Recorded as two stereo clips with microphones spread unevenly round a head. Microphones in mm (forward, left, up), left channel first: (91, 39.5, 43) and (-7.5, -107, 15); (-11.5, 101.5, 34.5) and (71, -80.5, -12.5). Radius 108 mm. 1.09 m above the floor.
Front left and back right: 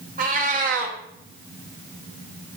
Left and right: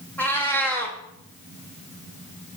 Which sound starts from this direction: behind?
A cat meowing, at 0.2 s.